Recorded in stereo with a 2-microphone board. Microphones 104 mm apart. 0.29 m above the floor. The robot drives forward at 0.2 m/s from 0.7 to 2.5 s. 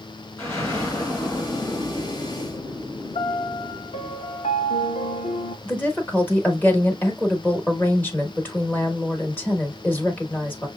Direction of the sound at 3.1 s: 80° left.